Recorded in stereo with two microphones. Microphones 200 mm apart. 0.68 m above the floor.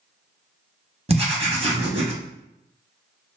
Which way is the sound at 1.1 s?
30° right (ahead or behind).